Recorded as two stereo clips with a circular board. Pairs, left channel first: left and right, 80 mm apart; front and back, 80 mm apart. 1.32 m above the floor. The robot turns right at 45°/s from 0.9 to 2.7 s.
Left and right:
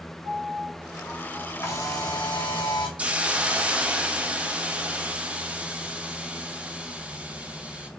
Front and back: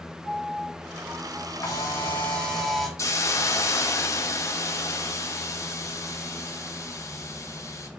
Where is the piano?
45° left, 3 m; by 1.5 s 70° left, 3 m.